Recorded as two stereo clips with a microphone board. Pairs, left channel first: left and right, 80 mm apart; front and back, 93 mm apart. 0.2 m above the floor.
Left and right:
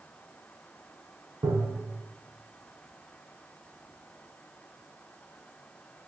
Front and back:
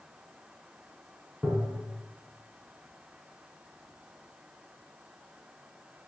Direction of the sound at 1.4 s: 100° right.